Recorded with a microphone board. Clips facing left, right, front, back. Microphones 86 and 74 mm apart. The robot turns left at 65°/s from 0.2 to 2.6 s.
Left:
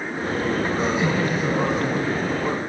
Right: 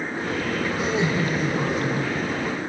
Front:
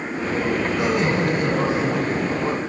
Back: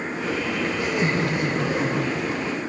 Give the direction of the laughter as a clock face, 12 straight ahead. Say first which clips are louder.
Left 2 dB, front 2 dB; 12 o'clock.